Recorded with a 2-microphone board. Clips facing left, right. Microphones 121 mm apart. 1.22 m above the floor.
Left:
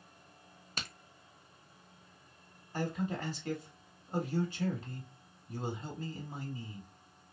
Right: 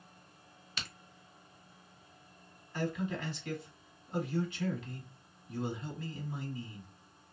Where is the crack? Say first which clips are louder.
Left 2 dB; 45° left (ahead or behind), 0.5 m.